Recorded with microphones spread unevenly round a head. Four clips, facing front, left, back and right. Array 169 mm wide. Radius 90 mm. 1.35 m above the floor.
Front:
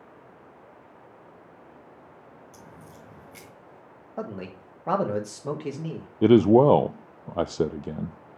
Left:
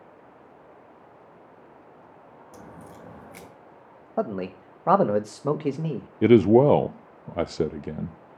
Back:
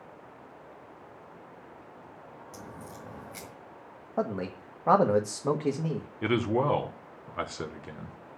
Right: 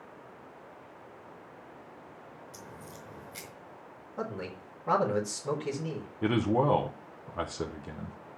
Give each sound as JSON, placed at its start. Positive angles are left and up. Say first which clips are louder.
{"t": 2.5, "sound": "a crack", "louder": "left 6 dB, back 5 dB", "azimuth_deg": 115, "distance_m": 2.0}
{"t": 4.2, "sound": "a man speaking", "louder": "left 9 dB, back 4 dB", "azimuth_deg": 100, "distance_m": 1.5}
{"t": 6.2, "sound": "a man speaking", "louder": "left 11 dB, front 11 dB", "azimuth_deg": 50, "distance_m": 0.5}